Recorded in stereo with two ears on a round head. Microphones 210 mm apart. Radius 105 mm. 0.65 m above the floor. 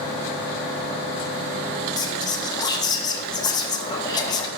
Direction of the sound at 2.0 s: 15° left (ahead or behind).